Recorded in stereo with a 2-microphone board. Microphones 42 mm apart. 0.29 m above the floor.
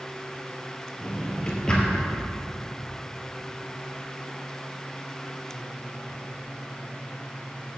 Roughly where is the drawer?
Left.